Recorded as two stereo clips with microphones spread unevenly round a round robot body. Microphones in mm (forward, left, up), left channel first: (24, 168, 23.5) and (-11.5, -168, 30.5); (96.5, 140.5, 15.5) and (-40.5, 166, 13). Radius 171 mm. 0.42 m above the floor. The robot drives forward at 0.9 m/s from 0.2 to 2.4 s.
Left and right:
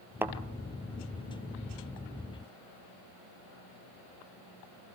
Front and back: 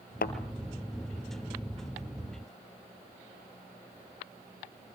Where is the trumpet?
No trumpet in this recording.